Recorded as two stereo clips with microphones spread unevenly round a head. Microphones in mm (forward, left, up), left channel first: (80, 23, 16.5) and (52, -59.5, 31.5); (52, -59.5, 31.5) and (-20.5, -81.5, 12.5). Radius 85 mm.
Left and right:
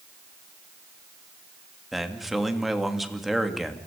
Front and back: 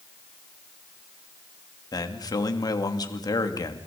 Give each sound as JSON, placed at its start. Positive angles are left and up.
{"t": 1.9, "sound": "a man speaking", "azimuth_deg": -20, "distance_m": 2.5}